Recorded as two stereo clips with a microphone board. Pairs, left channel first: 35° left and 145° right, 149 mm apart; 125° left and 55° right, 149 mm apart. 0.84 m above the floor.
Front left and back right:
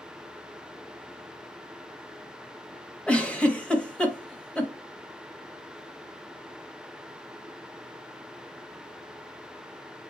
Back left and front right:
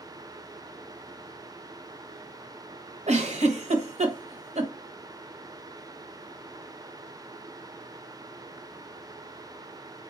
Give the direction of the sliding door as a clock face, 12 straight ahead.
I don't hear a sliding door.